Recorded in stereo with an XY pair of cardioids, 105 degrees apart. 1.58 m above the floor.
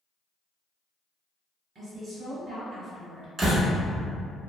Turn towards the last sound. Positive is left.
turn(degrees=-40)